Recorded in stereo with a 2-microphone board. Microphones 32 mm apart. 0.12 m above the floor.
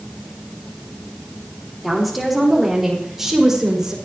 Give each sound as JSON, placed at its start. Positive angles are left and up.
{"t": 1.8, "sound": "a woman speaking", "side_deg": -5, "distance_m": 5.0}